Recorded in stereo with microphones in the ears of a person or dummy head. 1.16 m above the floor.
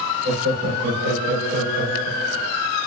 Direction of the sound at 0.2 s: 45° right (ahead or behind).